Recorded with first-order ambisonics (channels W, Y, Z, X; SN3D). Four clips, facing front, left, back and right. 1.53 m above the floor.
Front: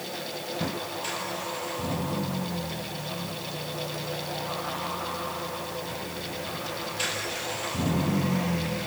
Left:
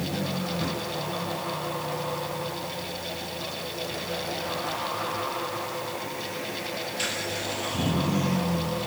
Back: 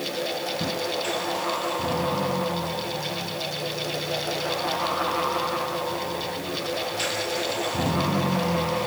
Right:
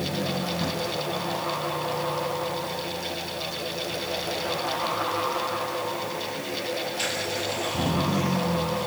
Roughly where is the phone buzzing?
No phone buzzing in this recording.